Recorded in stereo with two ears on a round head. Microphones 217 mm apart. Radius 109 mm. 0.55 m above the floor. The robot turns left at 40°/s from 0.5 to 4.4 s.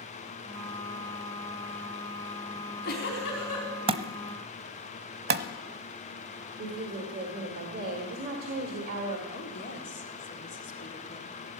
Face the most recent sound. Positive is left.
turn(degrees=50)  # may be behind; listen again after turning